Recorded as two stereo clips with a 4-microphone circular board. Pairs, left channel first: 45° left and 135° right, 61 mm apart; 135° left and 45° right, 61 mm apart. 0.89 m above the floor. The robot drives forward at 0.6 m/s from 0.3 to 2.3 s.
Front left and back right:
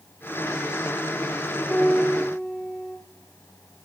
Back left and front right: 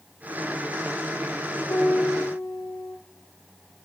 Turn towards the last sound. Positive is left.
turn(degrees=120)